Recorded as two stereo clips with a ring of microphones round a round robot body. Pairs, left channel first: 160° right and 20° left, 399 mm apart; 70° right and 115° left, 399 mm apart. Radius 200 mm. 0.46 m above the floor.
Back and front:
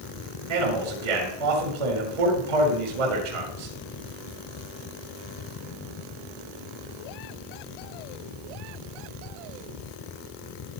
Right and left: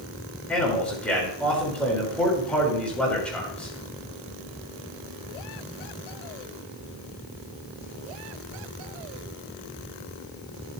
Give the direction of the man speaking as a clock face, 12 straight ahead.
11 o'clock.